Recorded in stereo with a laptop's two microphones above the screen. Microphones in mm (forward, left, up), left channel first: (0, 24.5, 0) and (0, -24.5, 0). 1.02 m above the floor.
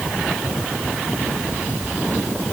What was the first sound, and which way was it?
Only background noise.